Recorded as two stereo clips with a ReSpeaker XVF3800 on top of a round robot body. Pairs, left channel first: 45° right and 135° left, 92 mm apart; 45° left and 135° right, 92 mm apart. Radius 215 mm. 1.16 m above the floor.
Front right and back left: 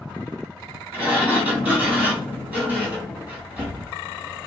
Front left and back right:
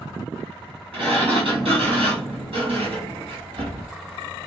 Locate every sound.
0.9 s a sliding door: 150° right, 2 m